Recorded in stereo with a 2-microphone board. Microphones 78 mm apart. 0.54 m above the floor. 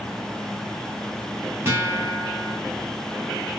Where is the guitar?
30° right (ahead or behind), 1.4 m.